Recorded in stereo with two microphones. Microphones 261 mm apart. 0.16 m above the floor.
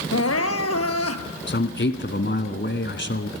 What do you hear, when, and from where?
0.1 s crying: 65° left (ahead or behind), 1.2 m
1.5 s a man speaking: 45° left (ahead or behind), 1.6 m